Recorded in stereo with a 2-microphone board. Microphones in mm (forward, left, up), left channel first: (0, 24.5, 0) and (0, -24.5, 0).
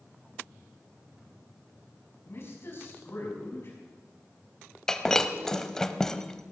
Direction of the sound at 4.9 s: 10° left (ahead or behind).